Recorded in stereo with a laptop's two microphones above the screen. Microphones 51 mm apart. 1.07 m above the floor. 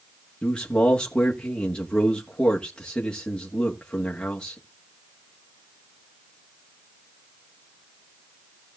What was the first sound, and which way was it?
A man speaking, 20° left (ahead or behind).